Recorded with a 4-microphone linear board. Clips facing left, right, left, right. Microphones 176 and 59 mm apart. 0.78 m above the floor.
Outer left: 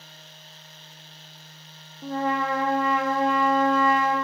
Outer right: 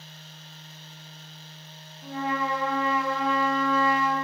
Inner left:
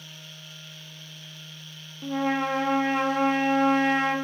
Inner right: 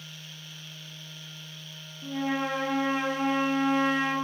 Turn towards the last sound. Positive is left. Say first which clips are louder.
# outer left 3 dB, inner left 4 dB
turn(degrees=50)  # may be behind; listen again after turning